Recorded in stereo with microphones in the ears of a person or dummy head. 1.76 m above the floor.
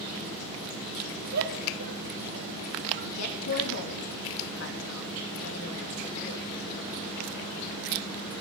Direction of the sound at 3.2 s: 90° left.